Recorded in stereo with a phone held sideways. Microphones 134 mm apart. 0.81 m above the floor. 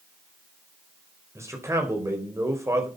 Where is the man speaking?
20° right (ahead or behind), 4 m.